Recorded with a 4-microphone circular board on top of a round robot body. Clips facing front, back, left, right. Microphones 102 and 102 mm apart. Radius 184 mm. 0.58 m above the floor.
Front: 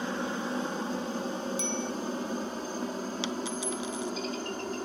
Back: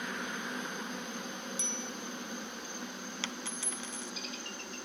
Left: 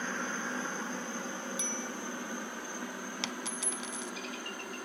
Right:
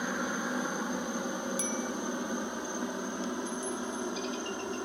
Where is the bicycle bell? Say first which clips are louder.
Front 9 dB, right 5 dB; 35° right.